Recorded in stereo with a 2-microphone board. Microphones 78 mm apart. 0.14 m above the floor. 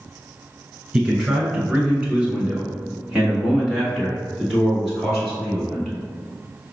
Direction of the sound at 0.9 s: 15° right (ahead or behind).